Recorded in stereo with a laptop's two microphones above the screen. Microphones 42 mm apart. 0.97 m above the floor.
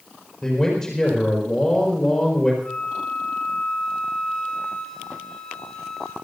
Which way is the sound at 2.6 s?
10° left (ahead or behind).